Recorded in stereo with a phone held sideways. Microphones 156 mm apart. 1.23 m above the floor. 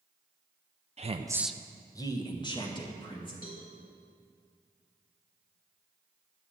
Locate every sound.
1.0 s a woman speaking: 45° right (ahead or behind), 0.6 m; by 3.3 s 35° left (ahead or behind), 3 m
3.4 s a cowbell: 75° left (ahead or behind), 3 m